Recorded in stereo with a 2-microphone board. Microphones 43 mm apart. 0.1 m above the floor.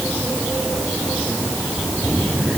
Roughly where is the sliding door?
No sliding door in this recording.